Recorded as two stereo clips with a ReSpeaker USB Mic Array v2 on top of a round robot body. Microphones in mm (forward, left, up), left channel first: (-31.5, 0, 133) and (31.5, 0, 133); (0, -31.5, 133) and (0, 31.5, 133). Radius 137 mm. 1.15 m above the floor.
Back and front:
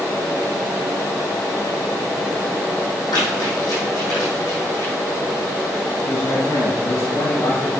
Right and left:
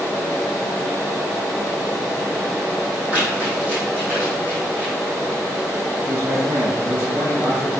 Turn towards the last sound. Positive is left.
turn(degrees=135)